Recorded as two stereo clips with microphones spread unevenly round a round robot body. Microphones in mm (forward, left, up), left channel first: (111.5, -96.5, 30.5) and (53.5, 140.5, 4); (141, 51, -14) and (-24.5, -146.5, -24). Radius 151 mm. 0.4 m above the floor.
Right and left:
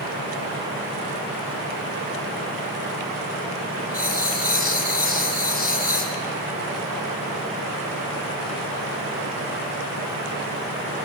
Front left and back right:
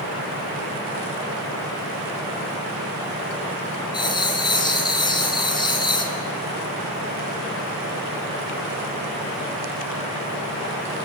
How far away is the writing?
About 4 m.